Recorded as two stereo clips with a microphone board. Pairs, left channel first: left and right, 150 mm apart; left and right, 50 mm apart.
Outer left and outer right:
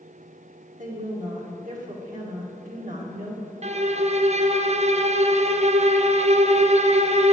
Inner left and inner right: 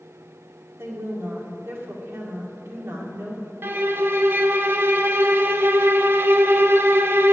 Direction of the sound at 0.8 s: 60° right (ahead or behind).